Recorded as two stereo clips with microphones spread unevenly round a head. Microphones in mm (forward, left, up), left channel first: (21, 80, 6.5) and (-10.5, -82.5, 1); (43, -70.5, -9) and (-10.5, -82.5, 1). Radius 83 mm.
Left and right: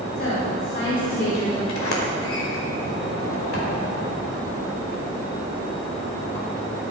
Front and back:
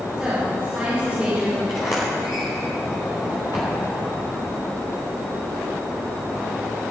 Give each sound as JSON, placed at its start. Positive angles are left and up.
{"t": 0.2, "sound": "a woman speaking", "azimuth_deg": 110, "distance_m": 5.5}
{"t": 1.7, "sound": "a sliding door", "azimuth_deg": 80, "distance_m": 4.0}